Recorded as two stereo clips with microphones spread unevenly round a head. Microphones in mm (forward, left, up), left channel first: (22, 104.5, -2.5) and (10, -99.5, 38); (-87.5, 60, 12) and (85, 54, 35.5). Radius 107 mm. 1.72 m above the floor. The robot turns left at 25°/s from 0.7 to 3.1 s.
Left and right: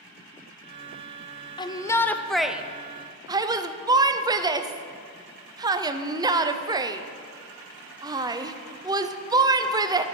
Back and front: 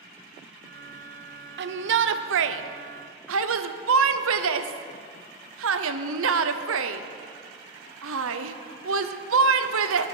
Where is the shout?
15° left, 0.7 m; by 10.1 s 20° right, 0.7 m.